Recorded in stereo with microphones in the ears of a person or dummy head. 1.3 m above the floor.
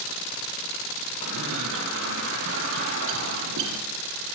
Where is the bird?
75° right (ahead or behind), 9.5 m.